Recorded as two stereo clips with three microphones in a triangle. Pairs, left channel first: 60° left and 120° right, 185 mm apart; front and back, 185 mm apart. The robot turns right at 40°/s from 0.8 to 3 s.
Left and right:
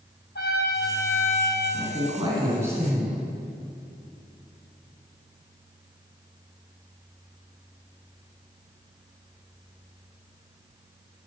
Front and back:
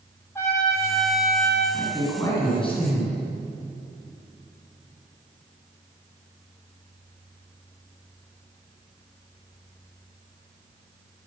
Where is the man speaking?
85° right, 2.5 m; by 3.2 s 35° right, 2.5 m.